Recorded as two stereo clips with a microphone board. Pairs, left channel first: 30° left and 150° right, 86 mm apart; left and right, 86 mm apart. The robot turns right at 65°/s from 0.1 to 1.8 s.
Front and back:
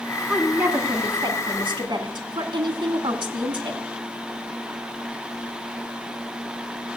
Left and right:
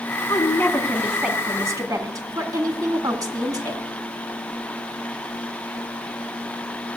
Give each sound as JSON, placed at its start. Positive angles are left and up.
{"t": 0.3, "sound": "a woman speaking", "azimuth_deg": 130, "distance_m": 2.0}